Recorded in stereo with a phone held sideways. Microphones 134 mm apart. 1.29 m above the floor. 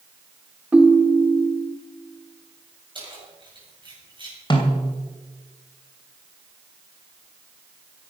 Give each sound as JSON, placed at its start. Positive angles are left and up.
{"t": 0.7, "sound": "a ringtone", "side_deg": -10, "distance_m": 1.3}
{"t": 3.0, "sound": "keys jangling", "side_deg": -35, "distance_m": 6.0}
{"t": 4.5, "sound": "a snare drum", "side_deg": 35, "distance_m": 3.0}